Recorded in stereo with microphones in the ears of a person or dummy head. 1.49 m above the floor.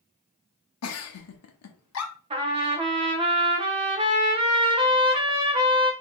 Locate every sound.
0.8 s a giggle: 80° left, 0.7 m
2.3 s a trumpet: 30° right (ahead or behind), 0.7 m